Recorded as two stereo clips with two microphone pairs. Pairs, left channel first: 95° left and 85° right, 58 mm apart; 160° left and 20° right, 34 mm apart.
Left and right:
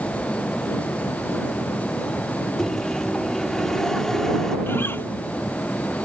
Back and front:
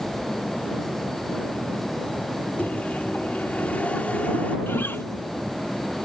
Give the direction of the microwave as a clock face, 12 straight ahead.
6 o'clock.